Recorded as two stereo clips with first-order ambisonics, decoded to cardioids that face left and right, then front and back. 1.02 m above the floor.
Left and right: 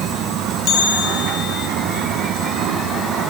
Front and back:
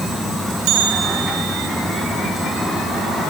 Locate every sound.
0.7 s a bell: 140° left, 3 m